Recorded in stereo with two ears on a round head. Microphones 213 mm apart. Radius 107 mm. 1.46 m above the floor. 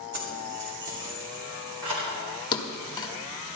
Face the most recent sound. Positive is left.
turn(degrees=20)  # may be behind; listen again after turning